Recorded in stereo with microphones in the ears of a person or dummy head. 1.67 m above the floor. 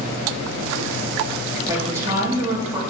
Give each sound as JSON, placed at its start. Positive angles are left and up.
{"t": 1.7, "sound": "a woman speaking", "side_deg": -15, "distance_m": 2.5}